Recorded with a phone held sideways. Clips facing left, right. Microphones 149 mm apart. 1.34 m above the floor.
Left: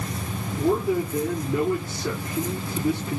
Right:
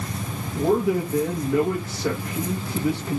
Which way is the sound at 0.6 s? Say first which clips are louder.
Right 2 dB; 85° right.